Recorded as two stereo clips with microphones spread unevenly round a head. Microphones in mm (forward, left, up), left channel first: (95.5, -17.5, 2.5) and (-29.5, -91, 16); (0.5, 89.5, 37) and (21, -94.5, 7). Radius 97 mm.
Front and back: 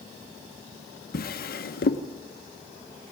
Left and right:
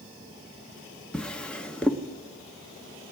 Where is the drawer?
15° left, 1.2 m.